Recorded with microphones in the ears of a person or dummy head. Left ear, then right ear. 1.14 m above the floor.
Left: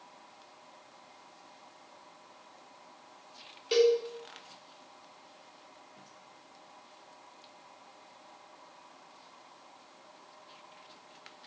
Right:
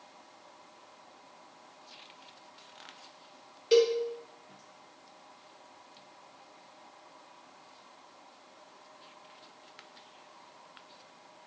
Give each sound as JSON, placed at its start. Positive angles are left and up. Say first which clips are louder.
{"t": 3.7, "sound": "a cowbell", "louder": "right 1 dB", "side_deg": 0, "distance_m": 0.6}